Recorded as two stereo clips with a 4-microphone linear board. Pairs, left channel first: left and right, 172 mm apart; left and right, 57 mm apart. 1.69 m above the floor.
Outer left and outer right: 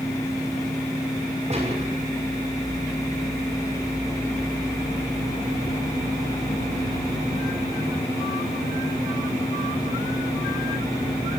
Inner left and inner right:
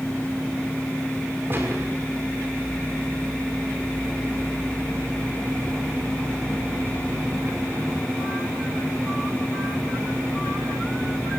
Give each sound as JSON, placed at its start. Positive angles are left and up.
{"t": 1.5, "sound": "a gunshot", "side_deg": -40, "distance_m": 6.0}